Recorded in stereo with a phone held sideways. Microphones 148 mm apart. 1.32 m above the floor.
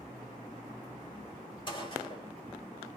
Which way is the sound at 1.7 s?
35° left (ahead or behind).